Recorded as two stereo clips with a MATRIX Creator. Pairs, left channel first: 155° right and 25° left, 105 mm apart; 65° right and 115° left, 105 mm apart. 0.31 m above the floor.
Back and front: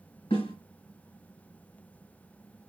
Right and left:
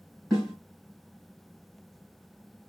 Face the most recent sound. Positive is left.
turn(degrees=-160)